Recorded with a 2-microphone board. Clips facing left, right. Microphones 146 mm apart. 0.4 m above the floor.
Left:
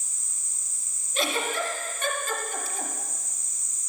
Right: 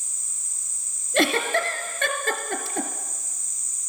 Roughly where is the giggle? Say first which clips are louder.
Right 6 dB; right.